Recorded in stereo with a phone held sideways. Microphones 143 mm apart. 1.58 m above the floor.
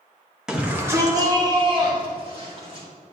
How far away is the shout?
About 1.6 m.